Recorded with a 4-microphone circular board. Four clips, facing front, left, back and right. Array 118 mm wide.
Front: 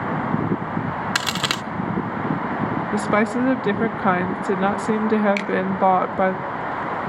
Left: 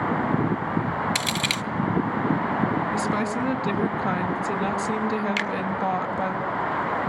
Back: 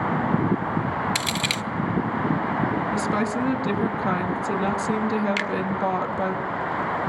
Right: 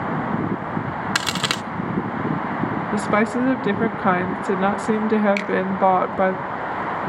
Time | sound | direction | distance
1.1 | a crack | 45° right | 0.7 m
2.9 | a woman speaking | 45° right | 1.4 m
5.4 | a finger snap | 140° left | 1.7 m